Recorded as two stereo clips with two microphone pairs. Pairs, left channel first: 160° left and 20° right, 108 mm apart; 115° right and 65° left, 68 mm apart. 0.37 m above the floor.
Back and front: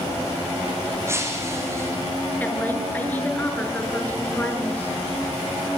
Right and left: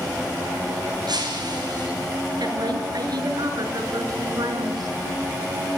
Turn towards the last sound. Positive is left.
turn(degrees=85)